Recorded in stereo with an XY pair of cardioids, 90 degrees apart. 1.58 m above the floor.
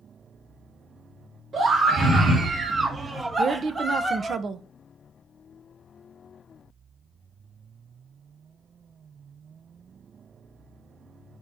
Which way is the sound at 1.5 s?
60° right.